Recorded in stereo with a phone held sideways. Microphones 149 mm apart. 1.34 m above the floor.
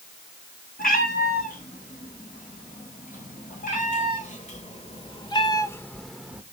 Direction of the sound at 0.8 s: 75° left (ahead or behind).